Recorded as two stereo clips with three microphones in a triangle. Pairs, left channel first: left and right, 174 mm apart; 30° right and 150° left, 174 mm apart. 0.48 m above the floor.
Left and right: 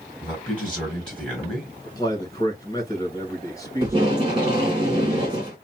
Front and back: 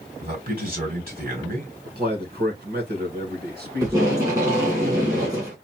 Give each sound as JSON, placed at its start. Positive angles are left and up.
{"t": 0.2, "sound": "a man speaking", "azimuth_deg": 175, "distance_m": 3.0}
{"t": 1.9, "sound": "a man speaking", "azimuth_deg": 155, "distance_m": 2.0}
{"t": 3.8, "sound": "tape being pulled", "azimuth_deg": -145, "distance_m": 2.0}